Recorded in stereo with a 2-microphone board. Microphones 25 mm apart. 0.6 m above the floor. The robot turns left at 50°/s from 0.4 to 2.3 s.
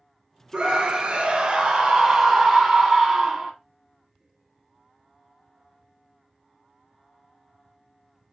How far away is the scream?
About 0.8 m.